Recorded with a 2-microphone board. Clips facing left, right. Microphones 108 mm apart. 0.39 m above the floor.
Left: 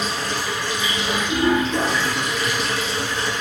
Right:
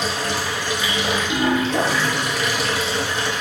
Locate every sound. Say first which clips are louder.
0.0 s running water: right 1 dB; 65° right (ahead or behind), 0.8 m